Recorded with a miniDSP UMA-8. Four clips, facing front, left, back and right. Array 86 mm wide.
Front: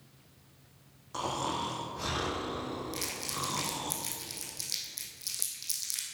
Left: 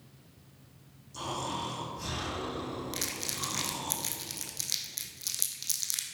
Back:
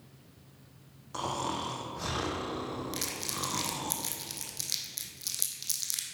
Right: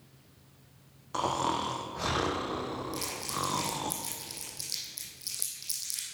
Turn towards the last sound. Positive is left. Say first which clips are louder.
# right 3 dB, even
turn(degrees=120)